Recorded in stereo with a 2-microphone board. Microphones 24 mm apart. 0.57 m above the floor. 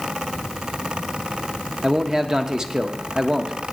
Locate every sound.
1.8 s a man speaking: 25° right (ahead or behind), 0.7 m